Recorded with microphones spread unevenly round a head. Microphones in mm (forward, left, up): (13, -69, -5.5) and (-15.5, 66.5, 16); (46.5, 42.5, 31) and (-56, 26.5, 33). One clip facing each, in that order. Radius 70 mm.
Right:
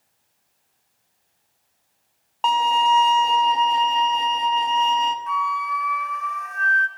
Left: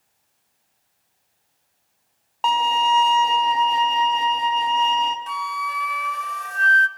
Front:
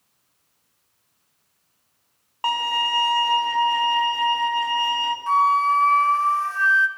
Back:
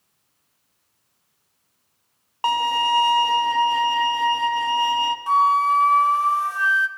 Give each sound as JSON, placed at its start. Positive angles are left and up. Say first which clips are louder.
{"t": 2.4, "sound": "a violin", "louder": "right 1 dB, back 4 dB", "azimuth_deg": 165, "distance_m": 0.9}
{"t": 5.3, "sound": "a flute", "louder": "right 3 dB, even", "azimuth_deg": 120, "distance_m": 0.7}